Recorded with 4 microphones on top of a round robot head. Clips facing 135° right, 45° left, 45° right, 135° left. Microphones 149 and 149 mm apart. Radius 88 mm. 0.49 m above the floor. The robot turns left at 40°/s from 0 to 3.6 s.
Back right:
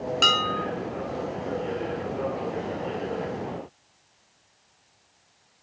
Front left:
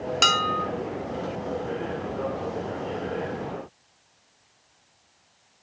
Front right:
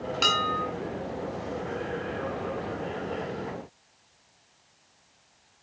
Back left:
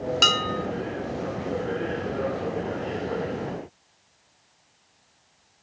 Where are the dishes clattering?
95° left, 2.5 m; by 0.7 s 75° left, 2.5 m.